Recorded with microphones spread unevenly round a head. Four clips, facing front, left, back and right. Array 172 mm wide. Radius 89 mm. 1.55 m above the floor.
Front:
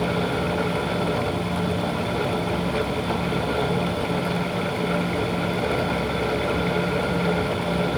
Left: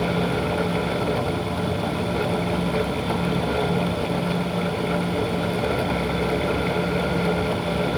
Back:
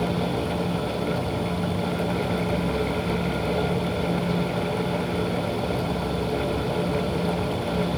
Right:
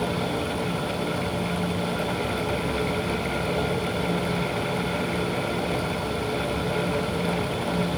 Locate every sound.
Only background noise.